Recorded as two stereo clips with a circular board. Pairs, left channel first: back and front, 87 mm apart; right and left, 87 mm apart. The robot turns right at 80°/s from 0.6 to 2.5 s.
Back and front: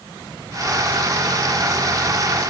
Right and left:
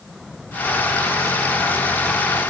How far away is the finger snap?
I don't hear a finger snap.